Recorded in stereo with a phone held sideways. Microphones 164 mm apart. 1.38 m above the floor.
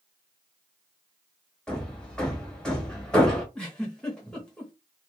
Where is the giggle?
5° left (ahead or behind), 0.9 m.